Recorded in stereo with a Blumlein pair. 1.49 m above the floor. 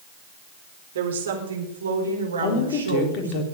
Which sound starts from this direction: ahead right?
A woman speaking, at 0.9 s.